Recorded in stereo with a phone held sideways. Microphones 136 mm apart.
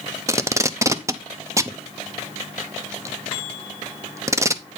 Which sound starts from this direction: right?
Tape being pulled, at 0.3 s.